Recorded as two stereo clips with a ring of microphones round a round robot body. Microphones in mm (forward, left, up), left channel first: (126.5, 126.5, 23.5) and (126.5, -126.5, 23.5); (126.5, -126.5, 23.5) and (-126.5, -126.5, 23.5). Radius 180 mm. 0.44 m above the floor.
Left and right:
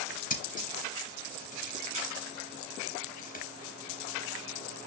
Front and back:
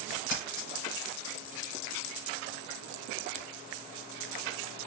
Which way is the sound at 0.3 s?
30° left.